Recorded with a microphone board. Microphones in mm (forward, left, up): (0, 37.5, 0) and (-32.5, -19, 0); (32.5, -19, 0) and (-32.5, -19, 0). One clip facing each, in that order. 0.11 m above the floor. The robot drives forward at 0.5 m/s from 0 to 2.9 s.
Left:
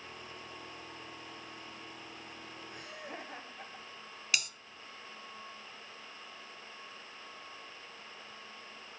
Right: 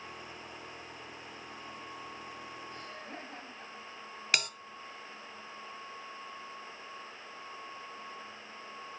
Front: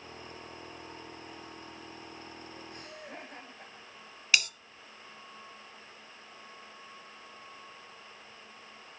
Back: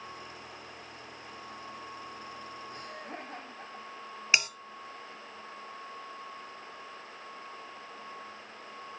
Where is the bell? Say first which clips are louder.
Right 4 dB, back 1 dB; 125° right, 0.6 m.